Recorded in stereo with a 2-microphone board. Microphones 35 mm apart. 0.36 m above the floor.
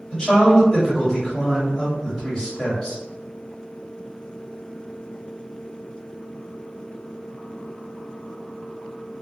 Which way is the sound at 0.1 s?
20° left (ahead or behind).